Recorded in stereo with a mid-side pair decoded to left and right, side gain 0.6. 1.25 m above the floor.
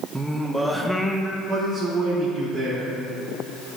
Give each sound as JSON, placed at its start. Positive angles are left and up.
{"t": 0.1, "sound": "singing", "azimuth_deg": -5, "distance_m": 1.1}
{"t": 1.5, "sound": "a man speaking", "azimuth_deg": -35, "distance_m": 3.0}